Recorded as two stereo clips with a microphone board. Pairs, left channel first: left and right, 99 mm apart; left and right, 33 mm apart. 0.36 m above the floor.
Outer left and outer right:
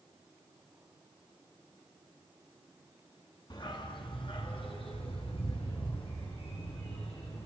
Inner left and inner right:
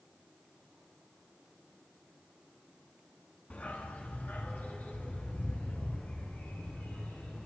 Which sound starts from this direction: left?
A dog barking, at 3.5 s.